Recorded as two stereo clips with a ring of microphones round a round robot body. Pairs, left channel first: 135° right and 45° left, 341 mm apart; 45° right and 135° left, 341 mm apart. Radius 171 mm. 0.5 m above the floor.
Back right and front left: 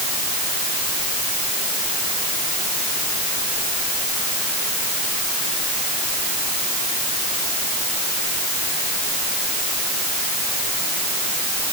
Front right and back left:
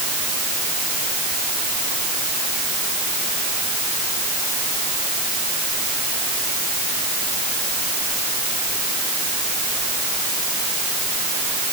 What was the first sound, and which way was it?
Only background noise.